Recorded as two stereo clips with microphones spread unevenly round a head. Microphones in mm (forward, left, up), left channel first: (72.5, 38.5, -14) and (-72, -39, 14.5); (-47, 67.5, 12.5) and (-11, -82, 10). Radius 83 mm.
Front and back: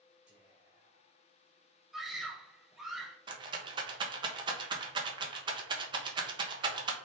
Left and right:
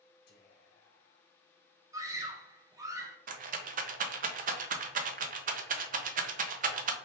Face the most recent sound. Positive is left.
turn(degrees=-85)